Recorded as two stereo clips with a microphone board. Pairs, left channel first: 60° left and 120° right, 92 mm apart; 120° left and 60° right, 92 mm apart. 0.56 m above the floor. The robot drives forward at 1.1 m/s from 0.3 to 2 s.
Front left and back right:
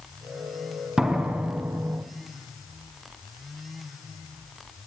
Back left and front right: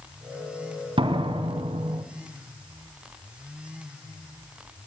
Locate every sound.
1.0 s a door slam: 40° right, 3 m; by 2.0 s 55° right, 2.5 m